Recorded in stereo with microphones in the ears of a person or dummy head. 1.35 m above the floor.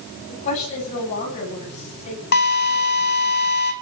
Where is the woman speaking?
40° left (ahead or behind), 9.5 m.